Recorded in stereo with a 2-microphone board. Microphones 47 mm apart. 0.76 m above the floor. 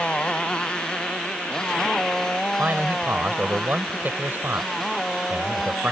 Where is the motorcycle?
20° left (ahead or behind); by 5.9 s 5° left (ahead or behind).